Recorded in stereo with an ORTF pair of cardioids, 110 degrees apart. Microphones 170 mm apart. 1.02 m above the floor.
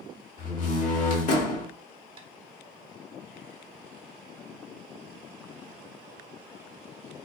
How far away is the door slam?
About 1.4 m.